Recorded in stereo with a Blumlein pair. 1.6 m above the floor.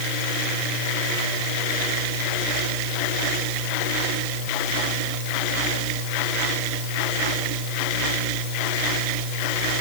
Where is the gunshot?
No gunshot in this recording.